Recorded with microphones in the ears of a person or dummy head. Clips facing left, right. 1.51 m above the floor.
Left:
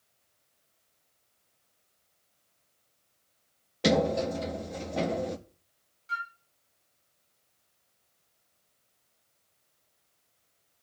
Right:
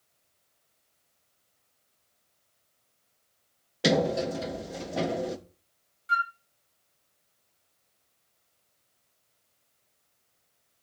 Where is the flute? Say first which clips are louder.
Right 8 dB; 15° right (ahead or behind), 0.6 m.